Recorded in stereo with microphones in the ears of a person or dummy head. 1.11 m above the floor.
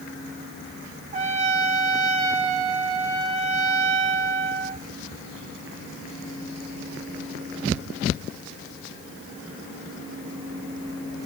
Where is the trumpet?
40° right (ahead or behind), 1.9 m.